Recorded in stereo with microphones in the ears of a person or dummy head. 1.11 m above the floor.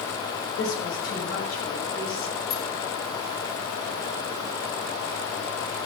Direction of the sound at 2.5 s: 35° left (ahead or behind).